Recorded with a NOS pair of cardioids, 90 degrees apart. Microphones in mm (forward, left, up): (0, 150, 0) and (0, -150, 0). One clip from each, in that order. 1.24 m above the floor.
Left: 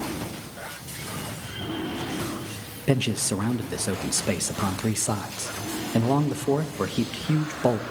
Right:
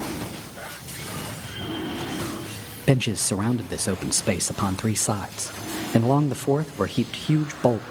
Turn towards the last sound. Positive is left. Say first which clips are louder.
# right 2 dB
turn(degrees=-30)